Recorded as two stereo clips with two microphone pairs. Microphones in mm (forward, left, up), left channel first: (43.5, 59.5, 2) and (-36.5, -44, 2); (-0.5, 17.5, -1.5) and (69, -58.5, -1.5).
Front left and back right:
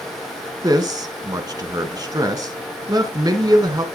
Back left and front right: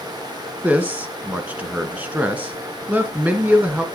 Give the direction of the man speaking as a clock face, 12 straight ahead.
3 o'clock.